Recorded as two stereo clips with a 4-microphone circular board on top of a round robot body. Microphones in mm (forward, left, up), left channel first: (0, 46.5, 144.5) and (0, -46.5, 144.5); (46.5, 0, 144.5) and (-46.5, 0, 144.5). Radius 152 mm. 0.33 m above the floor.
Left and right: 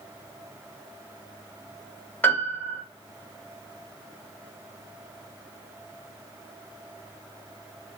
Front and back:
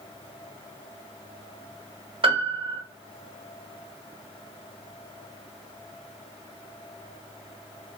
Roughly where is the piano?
Behind.